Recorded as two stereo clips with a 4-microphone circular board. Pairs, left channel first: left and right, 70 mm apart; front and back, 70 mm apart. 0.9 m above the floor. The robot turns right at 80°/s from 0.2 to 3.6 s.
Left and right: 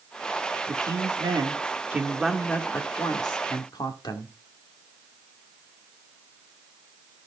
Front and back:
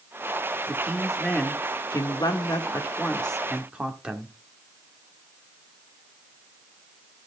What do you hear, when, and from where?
0.7 s a man speaking: 130° right, 1.9 m; by 4.3 s 105° left, 1.9 m